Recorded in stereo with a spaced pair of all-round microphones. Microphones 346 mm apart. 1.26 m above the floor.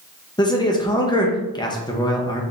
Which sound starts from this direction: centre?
A man speaking, at 0.4 s.